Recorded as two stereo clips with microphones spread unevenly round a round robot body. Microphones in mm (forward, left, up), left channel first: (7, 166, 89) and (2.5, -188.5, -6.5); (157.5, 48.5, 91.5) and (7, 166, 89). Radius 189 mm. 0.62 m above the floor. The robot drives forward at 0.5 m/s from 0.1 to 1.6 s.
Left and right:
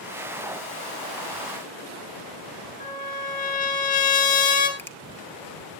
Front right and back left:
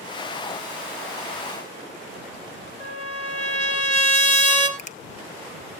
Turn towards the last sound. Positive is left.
turn(degrees=-10)